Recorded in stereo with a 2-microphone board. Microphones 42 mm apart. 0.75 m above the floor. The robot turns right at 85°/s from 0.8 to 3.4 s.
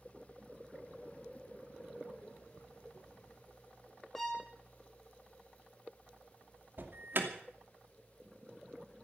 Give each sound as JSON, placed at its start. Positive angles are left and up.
{"t": 4.2, "sound": "a violin", "side_deg": 5, "distance_m": 3.5}
{"t": 6.8, "sound": "an alarm", "side_deg": -55, "distance_m": 2.5}